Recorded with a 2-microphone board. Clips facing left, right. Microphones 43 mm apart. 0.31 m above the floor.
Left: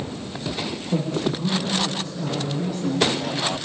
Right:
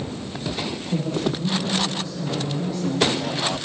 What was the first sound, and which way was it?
A man speaking, 55° left (ahead or behind).